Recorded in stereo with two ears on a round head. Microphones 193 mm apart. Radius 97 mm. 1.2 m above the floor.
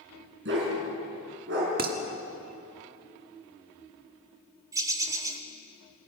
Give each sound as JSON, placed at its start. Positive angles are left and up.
{"t": 0.5, "sound": "a dog barking", "side_deg": -55, "distance_m": 6.0}
{"t": 1.8, "sound": "dishes clattering", "side_deg": -45, "distance_m": 1.8}
{"t": 4.7, "sound": "a bird", "side_deg": -15, "distance_m": 1.7}